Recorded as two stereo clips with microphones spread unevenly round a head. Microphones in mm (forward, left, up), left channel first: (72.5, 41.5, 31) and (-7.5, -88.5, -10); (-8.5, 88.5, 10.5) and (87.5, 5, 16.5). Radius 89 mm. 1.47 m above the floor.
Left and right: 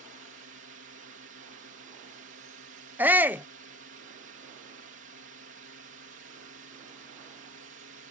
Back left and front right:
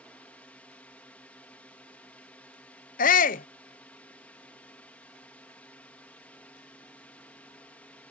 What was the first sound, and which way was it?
A drone, 140° right.